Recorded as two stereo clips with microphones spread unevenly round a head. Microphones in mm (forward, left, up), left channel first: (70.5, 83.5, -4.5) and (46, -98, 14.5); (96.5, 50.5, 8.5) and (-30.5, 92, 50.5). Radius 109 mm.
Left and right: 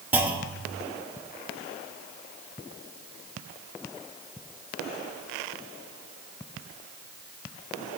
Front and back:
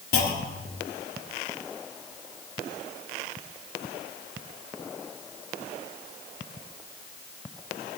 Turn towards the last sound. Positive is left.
turn(degrees=-25)